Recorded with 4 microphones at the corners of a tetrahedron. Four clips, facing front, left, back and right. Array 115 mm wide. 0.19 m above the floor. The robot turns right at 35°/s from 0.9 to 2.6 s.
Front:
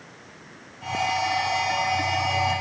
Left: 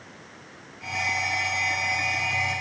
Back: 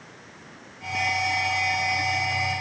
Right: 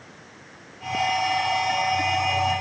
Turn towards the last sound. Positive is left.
No sound to turn to.